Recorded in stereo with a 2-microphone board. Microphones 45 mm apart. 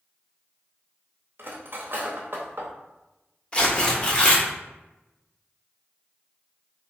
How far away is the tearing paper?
About 0.6 m.